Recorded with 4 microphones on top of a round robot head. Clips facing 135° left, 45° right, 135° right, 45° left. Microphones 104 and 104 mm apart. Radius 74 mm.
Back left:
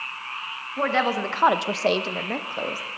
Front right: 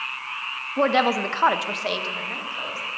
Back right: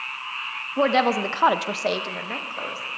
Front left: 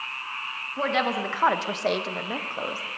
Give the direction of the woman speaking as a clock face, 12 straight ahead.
3 o'clock.